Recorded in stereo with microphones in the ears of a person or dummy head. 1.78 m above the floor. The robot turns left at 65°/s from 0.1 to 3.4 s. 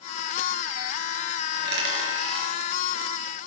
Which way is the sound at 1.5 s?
55° right (ahead or behind).